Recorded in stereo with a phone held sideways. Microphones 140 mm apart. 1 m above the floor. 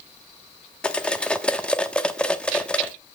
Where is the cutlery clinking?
10° left (ahead or behind), 0.8 m.